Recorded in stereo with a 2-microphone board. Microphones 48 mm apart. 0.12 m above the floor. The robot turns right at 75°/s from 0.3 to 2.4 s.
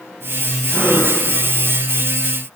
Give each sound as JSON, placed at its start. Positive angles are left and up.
{"t": 0.7, "sound": "a gasp", "azimuth_deg": 5, "distance_m": 5.5}